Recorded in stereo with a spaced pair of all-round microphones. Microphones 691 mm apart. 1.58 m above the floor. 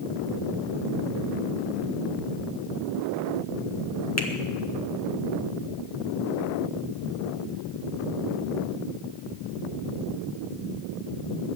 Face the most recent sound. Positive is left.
turn(degrees=20)  # may be behind; listen again after turning